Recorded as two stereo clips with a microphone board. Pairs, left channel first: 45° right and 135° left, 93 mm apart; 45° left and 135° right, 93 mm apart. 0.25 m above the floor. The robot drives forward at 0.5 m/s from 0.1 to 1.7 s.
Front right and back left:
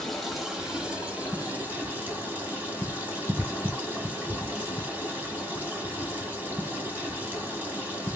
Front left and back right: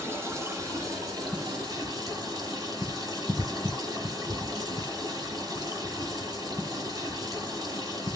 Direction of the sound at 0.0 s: 130° right.